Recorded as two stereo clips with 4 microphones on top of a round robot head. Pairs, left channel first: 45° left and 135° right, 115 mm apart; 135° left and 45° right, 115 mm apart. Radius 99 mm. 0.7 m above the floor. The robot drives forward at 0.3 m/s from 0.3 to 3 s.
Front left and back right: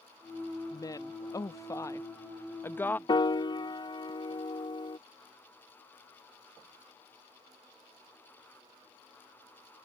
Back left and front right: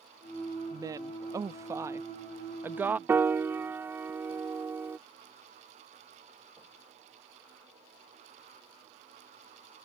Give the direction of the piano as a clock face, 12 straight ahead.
11 o'clock.